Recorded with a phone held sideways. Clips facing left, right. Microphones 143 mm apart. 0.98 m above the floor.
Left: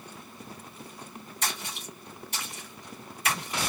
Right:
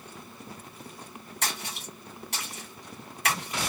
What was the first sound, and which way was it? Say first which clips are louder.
A splash: even; 85° right.